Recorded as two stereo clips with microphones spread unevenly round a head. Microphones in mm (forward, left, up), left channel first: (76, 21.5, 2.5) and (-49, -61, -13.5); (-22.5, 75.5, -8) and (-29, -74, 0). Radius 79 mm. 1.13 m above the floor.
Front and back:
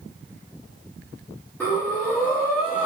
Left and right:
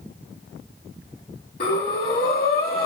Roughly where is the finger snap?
I don't hear a finger snap.